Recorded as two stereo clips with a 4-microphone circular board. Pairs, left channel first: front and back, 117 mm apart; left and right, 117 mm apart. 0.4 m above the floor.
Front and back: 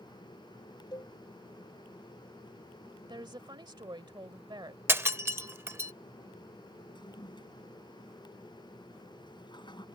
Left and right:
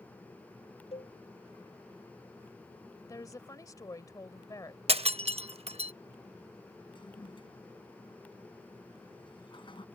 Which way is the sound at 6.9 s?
45° left.